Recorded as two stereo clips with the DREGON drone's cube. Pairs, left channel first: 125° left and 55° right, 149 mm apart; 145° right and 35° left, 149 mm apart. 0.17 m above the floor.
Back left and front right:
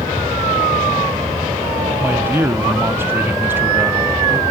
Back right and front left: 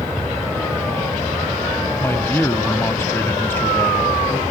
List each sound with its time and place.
2.0 s a man speaking: 105° right, 1.0 m